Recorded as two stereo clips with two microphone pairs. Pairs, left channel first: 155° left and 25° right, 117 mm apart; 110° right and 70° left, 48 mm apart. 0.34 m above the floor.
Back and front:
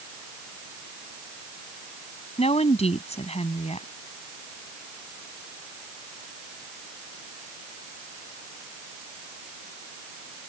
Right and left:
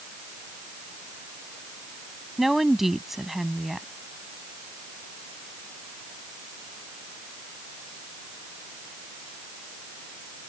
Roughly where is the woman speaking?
Behind left.